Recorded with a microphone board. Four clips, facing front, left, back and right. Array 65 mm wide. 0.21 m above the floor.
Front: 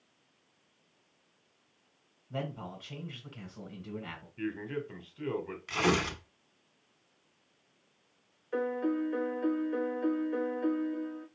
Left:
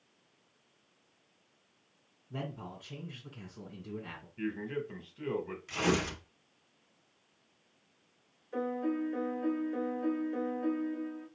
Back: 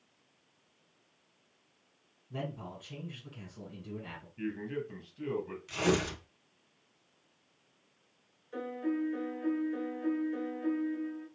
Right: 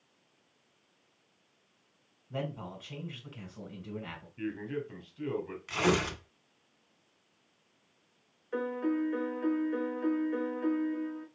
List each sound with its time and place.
2.3 s a man speaking: 45° right, 2.0 m
4.4 s a man speaking: 15° left, 1.1 m
5.7 s tearing paper: 35° right, 1.0 m
8.5 s a piano: 45° right, 1.1 m